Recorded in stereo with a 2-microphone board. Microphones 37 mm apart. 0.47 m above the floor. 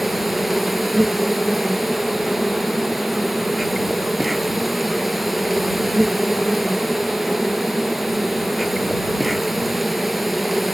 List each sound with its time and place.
0.0 s an insect: 5° right (ahead or behind)